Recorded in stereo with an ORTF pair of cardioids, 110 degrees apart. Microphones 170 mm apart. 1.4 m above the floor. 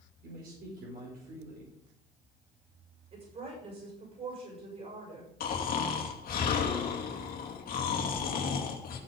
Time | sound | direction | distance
0.2 | a man speaking | 60° right | 5 m
3.1 | a woman speaking | 45° right | 7 m
5.4 | snoring | 60° left | 2.5 m